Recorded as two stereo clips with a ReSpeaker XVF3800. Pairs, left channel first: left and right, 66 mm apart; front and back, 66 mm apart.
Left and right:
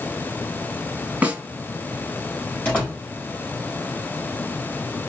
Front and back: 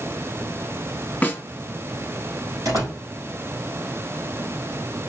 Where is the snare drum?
45° right, 1.3 m.